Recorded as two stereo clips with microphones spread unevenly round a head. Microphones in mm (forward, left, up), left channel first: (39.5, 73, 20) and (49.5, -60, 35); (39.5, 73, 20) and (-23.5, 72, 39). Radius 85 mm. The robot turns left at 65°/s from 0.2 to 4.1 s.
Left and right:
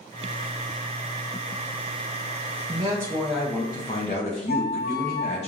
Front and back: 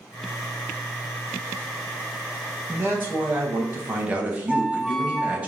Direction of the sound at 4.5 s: 95° left.